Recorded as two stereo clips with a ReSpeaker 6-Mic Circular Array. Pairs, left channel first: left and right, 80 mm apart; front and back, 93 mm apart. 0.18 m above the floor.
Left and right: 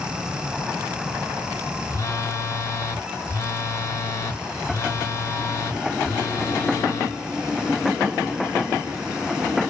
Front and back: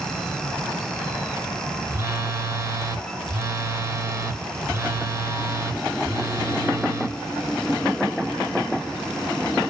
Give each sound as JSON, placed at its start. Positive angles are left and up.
{"t": 1.9, "sound": "a phone buzzing", "azimuth_deg": 130, "distance_m": 1.0}